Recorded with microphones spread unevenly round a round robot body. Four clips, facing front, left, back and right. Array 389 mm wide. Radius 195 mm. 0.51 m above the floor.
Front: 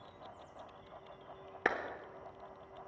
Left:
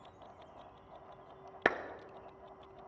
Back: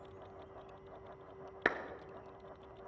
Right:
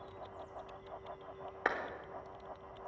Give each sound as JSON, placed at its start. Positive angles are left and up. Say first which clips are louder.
{"t": 1.6, "sound": "a clap", "louder": "left 3 dB, front 1 dB", "azimuth_deg": 105, "distance_m": 0.5}